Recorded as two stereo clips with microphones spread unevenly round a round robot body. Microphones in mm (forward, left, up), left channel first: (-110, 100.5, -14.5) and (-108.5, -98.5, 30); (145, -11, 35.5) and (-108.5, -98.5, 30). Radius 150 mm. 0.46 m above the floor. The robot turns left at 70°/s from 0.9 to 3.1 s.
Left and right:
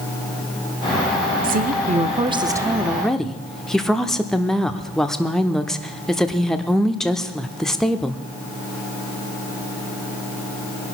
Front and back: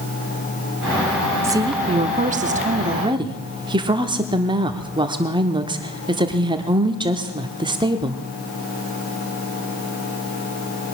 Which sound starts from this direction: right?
A woman speaking, at 1.4 s.